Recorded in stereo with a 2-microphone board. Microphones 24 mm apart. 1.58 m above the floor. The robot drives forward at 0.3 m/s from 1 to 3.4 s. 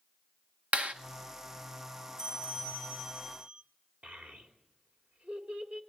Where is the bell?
35° right (ahead or behind), 1.2 m; by 3.6 s 30° right (ahead or behind), 1.3 m.